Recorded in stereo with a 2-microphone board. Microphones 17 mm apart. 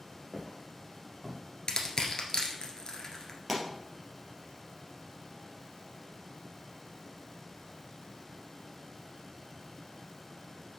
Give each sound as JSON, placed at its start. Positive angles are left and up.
{"t": 0.3, "sound": "footsteps", "side_deg": -5, "distance_m": 3.0}
{"t": 1.7, "sound": "crushing", "side_deg": 40, "distance_m": 1.6}
{"t": 3.5, "sound": "a pop", "side_deg": -10, "distance_m": 3.0}